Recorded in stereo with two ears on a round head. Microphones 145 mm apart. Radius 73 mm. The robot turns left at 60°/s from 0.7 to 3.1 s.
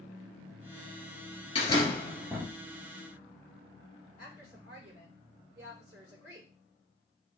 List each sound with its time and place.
1.6 s a door slam: 40° left, 2.5 m; by 2.5 s 15° right, 2.5 m
4.2 s a woman speaking: 20° right (ahead or behind), 5.5 m